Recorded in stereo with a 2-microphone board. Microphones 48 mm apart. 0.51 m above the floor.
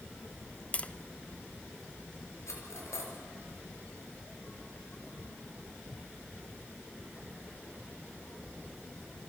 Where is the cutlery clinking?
80° left, 5 m.